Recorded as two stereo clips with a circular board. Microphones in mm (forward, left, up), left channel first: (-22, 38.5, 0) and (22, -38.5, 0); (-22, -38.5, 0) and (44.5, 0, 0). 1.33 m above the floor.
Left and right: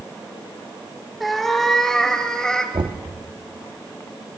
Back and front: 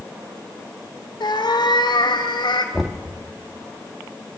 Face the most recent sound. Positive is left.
turn(degrees=-55)